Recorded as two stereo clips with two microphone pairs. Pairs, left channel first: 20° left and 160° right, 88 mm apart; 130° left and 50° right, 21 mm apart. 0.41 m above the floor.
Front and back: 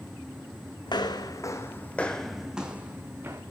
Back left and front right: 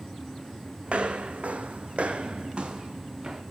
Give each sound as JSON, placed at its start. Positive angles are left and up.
{"t": 0.9, "sound": "footsteps", "azimuth_deg": -10, "distance_m": 1.5}